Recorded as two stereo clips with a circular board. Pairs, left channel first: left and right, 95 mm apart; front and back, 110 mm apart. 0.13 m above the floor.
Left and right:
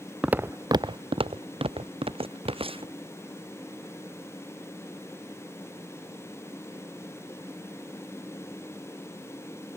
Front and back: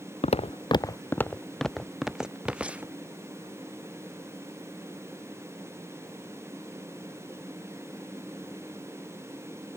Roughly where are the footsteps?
Ahead.